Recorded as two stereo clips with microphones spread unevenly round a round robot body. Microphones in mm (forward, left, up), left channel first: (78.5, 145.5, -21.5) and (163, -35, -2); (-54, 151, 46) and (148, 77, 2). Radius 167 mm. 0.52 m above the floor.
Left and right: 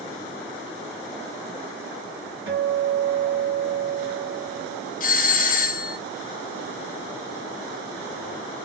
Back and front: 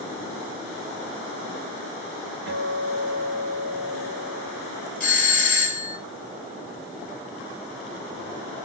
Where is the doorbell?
110° left, 1.8 m.